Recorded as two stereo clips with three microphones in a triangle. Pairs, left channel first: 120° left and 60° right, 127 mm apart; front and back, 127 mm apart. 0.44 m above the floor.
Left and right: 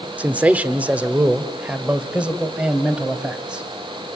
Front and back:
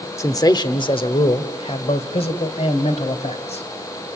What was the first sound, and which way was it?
A man speaking, straight ahead.